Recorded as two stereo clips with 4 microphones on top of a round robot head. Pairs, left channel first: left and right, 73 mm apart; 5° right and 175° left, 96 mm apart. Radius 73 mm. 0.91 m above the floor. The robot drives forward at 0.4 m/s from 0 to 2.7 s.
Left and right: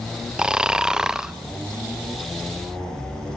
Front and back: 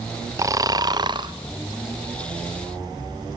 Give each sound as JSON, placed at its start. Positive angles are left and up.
{"t": 0.4, "sound": "snoring", "azimuth_deg": -160, "distance_m": 0.8}